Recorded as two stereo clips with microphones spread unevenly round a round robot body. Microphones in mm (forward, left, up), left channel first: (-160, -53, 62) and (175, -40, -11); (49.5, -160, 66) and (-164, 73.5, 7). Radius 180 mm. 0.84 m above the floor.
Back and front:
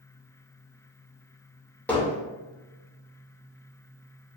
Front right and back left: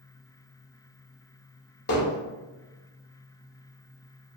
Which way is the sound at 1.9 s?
90° right.